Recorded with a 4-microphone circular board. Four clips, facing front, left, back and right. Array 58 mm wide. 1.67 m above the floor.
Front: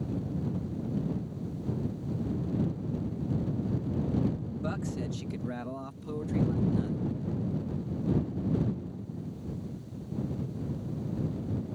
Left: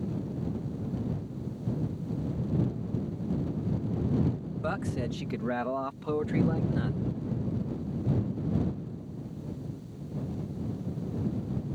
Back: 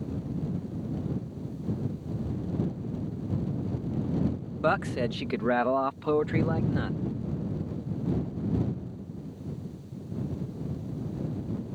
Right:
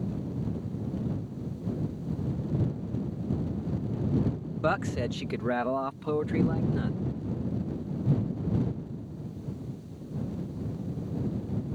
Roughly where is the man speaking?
Behind right.